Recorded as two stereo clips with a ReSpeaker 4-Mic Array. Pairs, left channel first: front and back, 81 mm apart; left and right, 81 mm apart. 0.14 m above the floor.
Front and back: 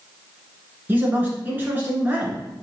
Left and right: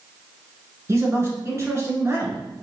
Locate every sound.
0.9 s a man speaking: 125° right, 1.5 m